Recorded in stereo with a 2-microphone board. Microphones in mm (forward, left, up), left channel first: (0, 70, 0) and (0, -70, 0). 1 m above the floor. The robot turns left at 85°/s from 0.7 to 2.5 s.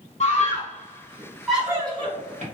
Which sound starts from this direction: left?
A scream, at 0.2 s.